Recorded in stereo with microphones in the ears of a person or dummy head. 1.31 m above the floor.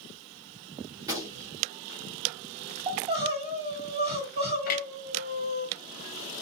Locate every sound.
1.0 s a gunshot: 20° right (ahead or behind), 1.0 m
2.9 s crying: 40° right (ahead or behind), 1.7 m
4.7 s a clunk: 45° left (ahead or behind), 0.6 m